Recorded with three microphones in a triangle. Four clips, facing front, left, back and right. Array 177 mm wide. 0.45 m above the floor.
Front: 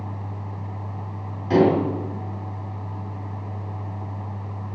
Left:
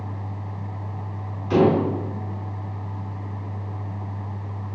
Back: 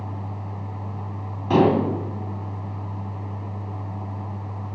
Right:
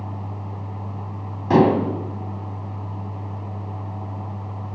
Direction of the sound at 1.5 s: 110° right.